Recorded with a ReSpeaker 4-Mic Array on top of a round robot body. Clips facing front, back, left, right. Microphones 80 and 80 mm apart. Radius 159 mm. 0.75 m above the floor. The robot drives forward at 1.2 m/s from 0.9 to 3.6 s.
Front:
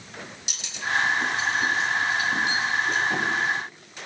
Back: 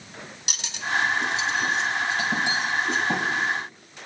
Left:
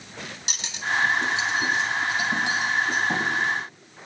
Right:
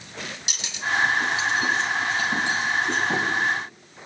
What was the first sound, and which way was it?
Cutlery clinking, 140° left.